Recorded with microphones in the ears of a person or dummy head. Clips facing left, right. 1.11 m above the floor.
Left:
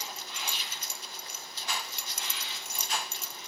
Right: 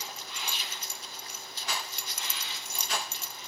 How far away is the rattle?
About 1.0 m.